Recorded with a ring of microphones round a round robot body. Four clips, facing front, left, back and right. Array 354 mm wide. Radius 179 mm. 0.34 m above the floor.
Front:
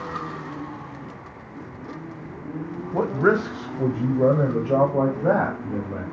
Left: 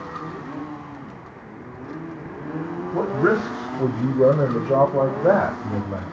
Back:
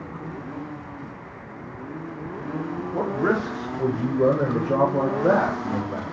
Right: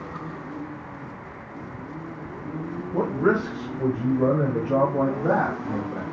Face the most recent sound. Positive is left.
turn(degrees=115)